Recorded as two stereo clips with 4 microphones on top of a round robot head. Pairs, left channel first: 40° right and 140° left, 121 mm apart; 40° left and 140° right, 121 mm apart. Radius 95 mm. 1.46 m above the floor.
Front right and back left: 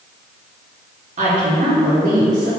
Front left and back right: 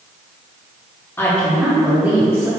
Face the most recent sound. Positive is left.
turn(degrees=155)